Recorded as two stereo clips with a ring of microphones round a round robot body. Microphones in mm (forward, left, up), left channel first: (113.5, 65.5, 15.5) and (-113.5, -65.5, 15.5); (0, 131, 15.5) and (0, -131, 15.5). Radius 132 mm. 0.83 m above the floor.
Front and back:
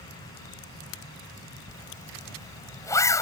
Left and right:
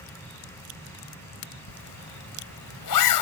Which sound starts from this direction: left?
A zipper, at 1.7 s.